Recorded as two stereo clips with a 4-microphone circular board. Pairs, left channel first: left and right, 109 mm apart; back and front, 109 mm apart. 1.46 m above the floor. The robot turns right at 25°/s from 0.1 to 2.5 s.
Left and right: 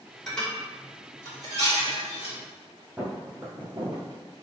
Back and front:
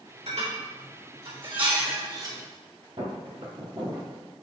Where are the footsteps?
20° right, 3 m; by 4.1 s 55° right, 2.5 m.